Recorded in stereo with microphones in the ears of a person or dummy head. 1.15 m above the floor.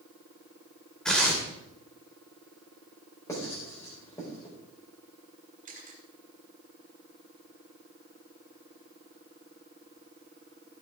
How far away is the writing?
About 4.5 m.